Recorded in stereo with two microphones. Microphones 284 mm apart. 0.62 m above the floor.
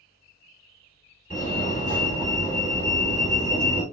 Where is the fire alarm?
30° left (ahead or behind), 2.0 m.